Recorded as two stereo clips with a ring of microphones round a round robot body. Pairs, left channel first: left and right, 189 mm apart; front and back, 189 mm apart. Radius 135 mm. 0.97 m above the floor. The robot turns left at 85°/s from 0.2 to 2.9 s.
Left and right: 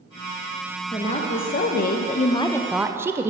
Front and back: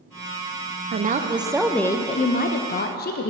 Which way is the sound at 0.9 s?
155° left.